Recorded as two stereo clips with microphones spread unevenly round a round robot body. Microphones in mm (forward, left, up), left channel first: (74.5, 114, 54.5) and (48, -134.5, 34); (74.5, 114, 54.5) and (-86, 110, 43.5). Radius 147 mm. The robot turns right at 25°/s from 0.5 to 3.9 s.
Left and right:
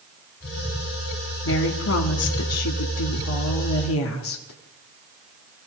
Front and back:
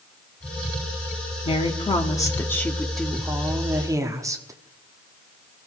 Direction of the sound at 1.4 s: 55° left.